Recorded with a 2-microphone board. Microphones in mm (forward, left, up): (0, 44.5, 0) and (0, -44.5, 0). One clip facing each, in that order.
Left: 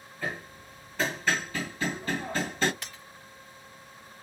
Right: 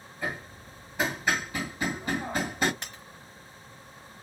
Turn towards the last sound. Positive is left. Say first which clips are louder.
# right 1 dB
turn(degrees=-30)  # may be behind; listen again after turning